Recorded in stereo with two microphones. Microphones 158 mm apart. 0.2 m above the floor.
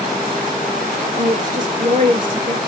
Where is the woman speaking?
60° right (ahead or behind), 3 m.